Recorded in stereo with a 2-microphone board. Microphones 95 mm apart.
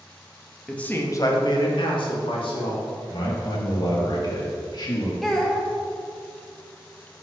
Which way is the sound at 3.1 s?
50° left (ahead or behind).